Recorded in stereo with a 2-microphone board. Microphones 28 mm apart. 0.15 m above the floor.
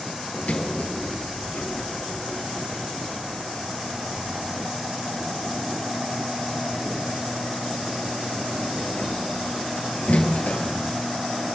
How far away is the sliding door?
About 2 m.